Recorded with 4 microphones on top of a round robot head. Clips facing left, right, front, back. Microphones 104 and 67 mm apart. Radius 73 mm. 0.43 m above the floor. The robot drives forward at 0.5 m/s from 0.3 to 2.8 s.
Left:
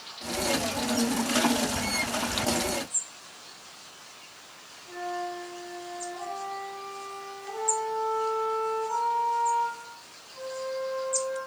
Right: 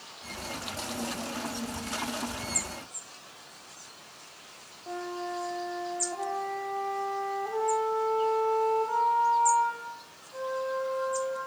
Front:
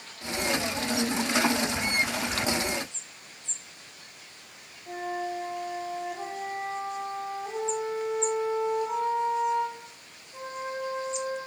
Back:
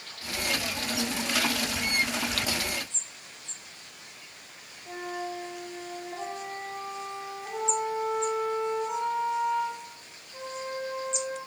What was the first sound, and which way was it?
A flute, 85° right.